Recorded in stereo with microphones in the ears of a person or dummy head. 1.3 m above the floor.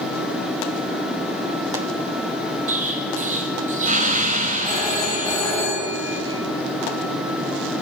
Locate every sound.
2.7 s an explosion: 35° right (ahead or behind), 1.7 m
4.7 s a phone ringing: centre (ahead or behind), 6 m